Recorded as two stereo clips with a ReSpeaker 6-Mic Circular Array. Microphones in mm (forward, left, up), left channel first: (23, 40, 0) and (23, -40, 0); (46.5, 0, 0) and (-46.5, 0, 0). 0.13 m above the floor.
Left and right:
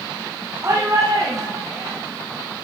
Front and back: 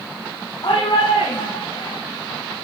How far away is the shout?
About 7 m.